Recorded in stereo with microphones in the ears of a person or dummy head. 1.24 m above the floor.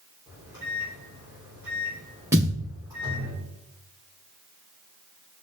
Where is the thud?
15° right (ahead or behind), 2.5 m.